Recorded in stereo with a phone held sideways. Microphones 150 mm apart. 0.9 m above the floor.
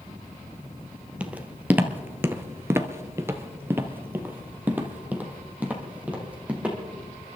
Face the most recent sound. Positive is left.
turn(degrees=-10)  # may be behind; listen again after turning